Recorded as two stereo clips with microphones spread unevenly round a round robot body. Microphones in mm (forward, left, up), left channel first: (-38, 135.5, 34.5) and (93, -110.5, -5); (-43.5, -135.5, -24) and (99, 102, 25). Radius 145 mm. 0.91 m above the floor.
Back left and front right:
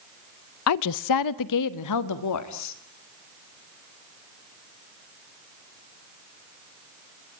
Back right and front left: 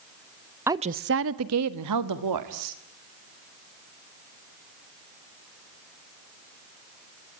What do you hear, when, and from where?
0.7 s a woman speaking: 150° left, 0.6 m; by 2.8 s 85° left, 2.5 m